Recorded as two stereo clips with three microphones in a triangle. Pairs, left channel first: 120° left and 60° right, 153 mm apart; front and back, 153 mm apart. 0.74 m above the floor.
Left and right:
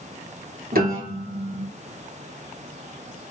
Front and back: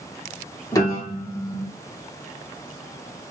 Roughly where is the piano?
Ahead right.